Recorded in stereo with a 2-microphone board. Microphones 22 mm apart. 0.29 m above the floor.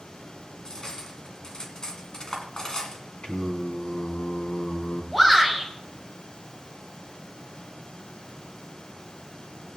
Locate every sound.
0.7 s cutlery clinking: 40° left (ahead or behind), 1.8 m
3.2 s singing: 45° left (ahead or behind), 2 m
5.1 s a shout: 15° left (ahead or behind), 1.6 m